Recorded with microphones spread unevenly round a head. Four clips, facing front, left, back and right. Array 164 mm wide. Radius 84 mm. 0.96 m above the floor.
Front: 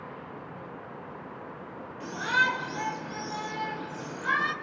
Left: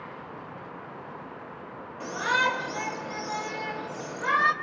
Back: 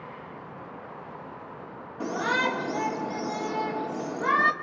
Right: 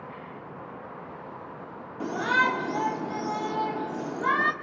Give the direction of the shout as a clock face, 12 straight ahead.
5 o'clock.